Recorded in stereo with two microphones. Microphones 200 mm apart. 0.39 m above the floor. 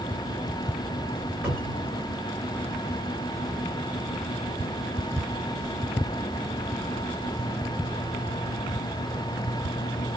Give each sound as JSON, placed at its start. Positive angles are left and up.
{"t": 1.4, "sound": "a cupboard door", "side_deg": -5, "distance_m": 2.0}